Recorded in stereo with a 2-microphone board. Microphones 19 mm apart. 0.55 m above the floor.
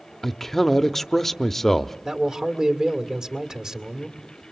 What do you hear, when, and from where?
0.2 s a man speaking: 15° left (ahead or behind), 0.7 m
2.0 s a man speaking: 45° right (ahead or behind), 2.0 m